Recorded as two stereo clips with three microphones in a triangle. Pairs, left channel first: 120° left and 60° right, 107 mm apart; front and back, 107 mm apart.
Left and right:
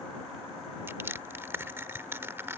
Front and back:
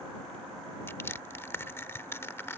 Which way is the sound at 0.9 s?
30° right.